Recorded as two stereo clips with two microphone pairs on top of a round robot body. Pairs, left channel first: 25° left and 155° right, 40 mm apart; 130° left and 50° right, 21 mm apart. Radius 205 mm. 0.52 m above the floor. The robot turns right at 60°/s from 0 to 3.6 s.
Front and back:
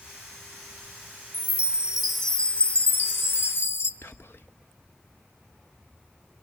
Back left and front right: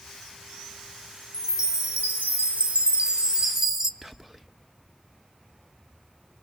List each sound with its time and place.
1.3 s a chime: 110° right, 1.7 m; by 3.9 s 25° left, 1.7 m
4.0 s whispering: 30° left, 1.0 m